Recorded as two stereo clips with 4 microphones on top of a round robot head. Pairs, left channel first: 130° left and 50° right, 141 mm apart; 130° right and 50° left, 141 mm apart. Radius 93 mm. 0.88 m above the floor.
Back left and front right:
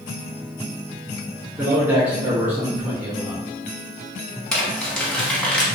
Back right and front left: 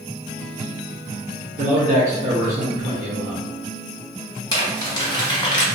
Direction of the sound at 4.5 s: 155° right.